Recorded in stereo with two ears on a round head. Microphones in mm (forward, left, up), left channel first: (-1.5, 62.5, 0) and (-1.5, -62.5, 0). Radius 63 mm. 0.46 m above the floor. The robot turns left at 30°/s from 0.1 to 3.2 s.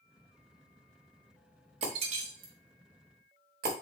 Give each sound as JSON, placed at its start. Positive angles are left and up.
{"t": 1.8, "sound": "breaking glass", "side_deg": -45, "distance_m": 1.3}